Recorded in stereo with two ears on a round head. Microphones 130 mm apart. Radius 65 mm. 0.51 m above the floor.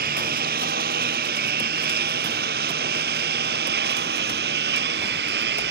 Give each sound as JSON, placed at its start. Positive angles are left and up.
{"t": 0.0, "sound": "a lawn mower", "side_deg": -65}